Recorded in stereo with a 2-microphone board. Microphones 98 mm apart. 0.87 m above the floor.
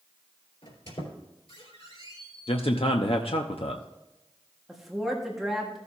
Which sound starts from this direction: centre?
A woman speaking, at 4.7 s.